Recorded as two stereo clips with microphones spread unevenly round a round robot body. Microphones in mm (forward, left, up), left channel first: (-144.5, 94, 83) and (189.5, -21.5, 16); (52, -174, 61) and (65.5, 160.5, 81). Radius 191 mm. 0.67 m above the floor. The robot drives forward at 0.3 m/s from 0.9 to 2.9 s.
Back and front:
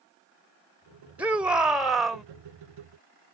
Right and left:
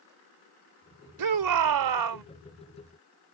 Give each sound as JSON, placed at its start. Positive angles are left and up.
{"t": 1.2, "sound": "a shout", "azimuth_deg": 65}